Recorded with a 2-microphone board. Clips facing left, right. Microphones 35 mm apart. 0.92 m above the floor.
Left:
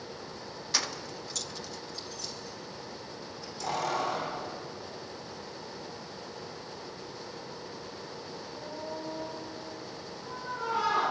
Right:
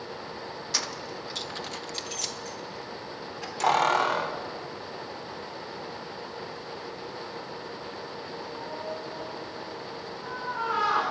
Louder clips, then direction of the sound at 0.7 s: Left 1 dB; 5° left (ahead or behind).